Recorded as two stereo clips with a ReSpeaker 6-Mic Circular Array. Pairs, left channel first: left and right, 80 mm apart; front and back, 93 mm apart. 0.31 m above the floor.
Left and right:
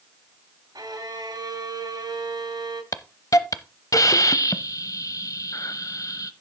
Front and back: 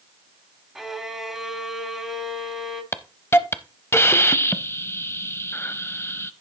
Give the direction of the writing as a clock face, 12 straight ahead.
I don't hear writing.